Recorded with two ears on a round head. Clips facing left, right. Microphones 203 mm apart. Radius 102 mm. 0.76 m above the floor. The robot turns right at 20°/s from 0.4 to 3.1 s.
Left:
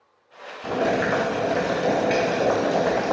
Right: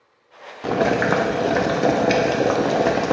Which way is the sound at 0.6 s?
100° right.